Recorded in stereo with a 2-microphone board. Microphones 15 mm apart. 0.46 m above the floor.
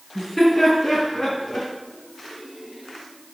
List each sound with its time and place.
0.1 s laughter: 35° left (ahead or behind), 4 m; by 1.7 s 60° left (ahead or behind), 4 m